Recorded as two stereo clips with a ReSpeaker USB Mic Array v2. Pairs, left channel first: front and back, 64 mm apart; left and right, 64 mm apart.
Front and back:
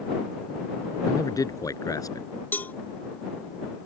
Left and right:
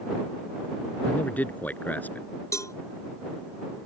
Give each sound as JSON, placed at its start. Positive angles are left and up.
{"t": 1.1, "sound": "a man speaking", "azimuth_deg": 25}
{"t": 2.5, "sound": "a cowbell", "azimuth_deg": 60}